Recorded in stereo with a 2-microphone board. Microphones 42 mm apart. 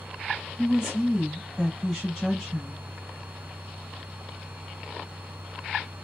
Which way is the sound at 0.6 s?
5° right (ahead or behind).